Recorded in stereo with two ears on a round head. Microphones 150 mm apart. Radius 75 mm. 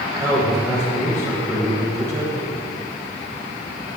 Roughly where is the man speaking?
Centre.